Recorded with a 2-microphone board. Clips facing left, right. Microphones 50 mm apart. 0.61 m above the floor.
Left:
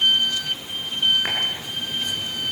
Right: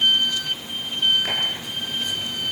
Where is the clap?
30° left (ahead or behind), 7.5 m.